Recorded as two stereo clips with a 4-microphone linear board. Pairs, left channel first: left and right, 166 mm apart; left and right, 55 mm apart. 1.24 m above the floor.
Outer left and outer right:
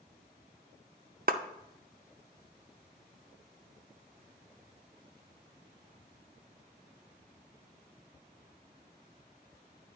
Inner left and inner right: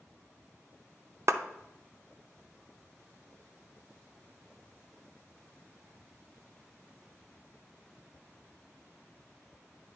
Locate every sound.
1.3 s a clap: 60° right (ahead or behind), 0.6 m